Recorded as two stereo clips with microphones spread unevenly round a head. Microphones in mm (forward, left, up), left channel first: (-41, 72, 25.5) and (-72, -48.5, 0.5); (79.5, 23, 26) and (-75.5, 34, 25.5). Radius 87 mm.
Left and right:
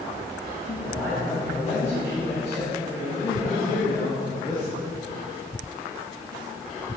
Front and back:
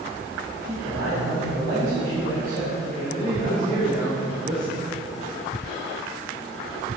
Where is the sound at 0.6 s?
145° left, 2.5 m.